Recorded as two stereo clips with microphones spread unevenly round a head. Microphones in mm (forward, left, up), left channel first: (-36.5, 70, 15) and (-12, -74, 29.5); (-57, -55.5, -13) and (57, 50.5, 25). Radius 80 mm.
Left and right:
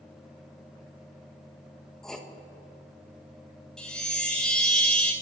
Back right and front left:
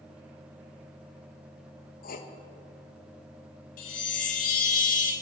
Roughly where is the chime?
Behind.